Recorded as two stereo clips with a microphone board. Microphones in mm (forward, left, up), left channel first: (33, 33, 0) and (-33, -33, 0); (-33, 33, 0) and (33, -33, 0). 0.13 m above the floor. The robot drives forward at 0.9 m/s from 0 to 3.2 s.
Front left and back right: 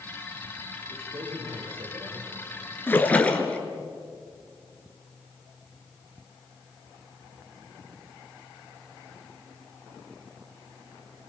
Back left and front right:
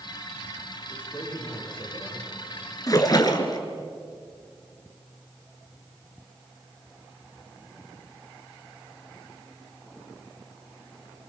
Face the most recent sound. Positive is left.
turn(degrees=115)